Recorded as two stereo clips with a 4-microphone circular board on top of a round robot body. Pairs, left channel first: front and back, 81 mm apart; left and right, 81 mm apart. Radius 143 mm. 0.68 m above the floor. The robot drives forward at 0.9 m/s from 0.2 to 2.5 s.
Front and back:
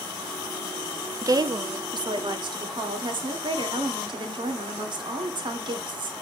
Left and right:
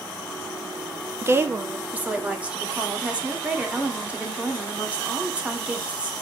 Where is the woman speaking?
140° right, 0.9 m; by 6.1 s 165° right, 1.8 m.